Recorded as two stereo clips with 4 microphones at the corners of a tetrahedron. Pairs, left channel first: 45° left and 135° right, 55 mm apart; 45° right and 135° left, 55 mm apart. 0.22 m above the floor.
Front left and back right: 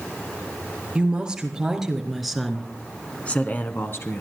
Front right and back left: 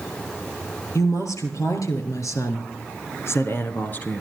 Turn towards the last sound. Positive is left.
turn(degrees=20)